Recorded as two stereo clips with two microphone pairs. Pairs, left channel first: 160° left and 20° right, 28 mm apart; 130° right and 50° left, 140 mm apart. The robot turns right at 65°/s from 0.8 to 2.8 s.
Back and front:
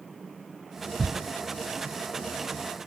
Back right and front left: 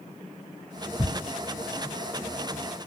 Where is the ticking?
105° right, 1.7 m; by 1.0 s 100° right, 1.7 m.